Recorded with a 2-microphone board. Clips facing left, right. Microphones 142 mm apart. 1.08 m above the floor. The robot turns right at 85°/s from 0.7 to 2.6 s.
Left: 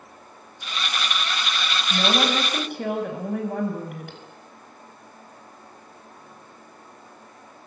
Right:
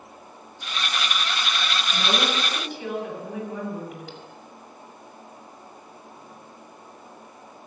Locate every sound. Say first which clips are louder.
1.9 s a woman speaking: left 4 dB; 65° left, 6 m; by 4.2 s 125° left, 6 m